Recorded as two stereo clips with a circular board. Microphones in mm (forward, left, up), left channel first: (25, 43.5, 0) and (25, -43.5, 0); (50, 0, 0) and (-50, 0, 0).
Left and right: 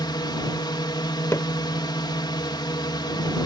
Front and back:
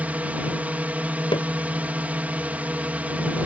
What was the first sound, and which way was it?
A drone, 110° left.